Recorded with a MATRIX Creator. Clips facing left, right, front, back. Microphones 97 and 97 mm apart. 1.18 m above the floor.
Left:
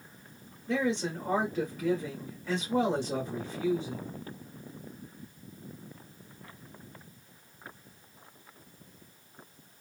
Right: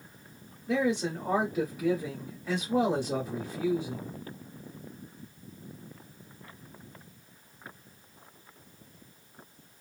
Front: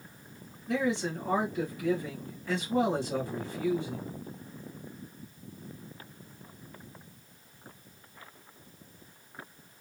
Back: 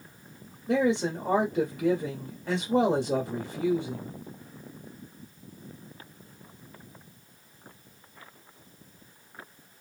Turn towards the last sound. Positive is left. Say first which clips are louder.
# right 2 dB, back 5 dB
turn(degrees=-170)